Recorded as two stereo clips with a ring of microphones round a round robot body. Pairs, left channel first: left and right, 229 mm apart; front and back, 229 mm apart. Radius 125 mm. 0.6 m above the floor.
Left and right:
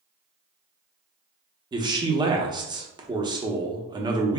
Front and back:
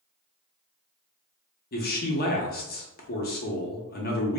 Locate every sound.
1.7 s a man speaking: 25° right, 0.8 m